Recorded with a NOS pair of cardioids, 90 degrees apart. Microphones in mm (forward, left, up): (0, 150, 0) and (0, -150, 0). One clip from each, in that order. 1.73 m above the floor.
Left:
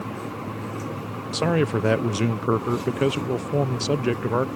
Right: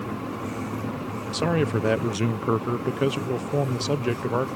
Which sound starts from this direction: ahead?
A man speaking, at 1.3 s.